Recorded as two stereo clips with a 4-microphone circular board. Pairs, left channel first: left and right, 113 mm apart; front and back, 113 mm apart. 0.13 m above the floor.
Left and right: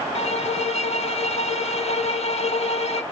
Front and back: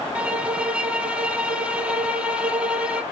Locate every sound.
0.1 s a violin: 100° left, 0.8 m